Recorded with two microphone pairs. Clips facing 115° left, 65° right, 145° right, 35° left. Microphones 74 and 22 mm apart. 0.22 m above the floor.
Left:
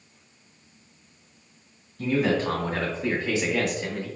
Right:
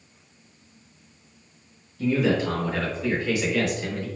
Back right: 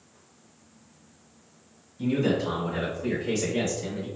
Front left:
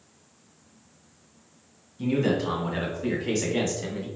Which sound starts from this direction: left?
A man speaking, at 2.0 s.